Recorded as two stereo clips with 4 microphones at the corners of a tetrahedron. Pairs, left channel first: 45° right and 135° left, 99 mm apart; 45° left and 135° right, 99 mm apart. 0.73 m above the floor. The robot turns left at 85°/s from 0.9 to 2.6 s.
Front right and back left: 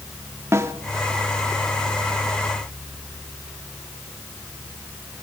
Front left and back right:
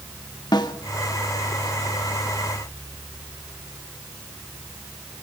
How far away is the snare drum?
About 1.2 m.